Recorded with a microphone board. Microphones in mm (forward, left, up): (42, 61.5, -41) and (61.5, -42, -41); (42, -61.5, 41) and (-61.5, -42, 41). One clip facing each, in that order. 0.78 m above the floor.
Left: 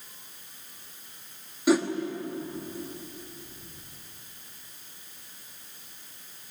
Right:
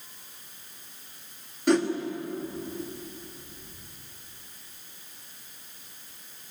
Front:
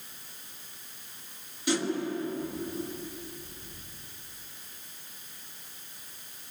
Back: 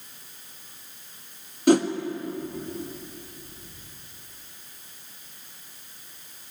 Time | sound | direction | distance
1.7 | a whoosh | 175° right | 1.2 m